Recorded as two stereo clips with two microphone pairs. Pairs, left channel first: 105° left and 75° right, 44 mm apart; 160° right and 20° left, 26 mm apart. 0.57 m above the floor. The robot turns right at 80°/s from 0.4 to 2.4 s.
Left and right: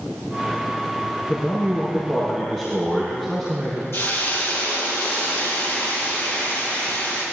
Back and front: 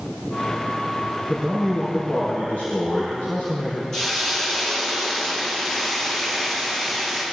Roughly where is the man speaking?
Left.